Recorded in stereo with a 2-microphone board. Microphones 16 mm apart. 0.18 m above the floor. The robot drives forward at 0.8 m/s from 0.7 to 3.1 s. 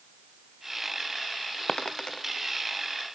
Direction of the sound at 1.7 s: 70° left (ahead or behind).